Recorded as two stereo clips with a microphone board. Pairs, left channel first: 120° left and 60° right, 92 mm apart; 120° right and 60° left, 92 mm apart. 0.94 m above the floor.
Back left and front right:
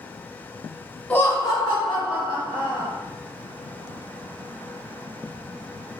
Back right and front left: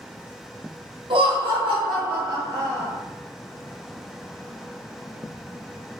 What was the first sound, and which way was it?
Laughter, 50° left.